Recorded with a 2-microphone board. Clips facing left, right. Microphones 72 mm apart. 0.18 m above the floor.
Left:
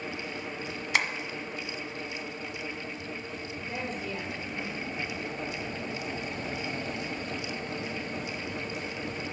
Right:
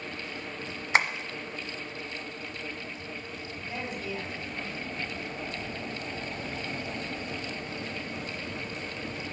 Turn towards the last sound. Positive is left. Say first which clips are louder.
# even
turn(degrees=35)  # may be behind; listen again after turning